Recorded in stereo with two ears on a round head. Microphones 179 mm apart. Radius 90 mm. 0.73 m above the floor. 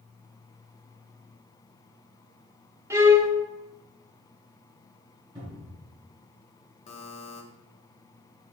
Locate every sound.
2.9 s a violin: 15° right (ahead or behind), 1.0 m
5.3 s a cupboard door: 25° right (ahead or behind), 5 m
6.9 s a buzzer: 35° left (ahead or behind), 1.8 m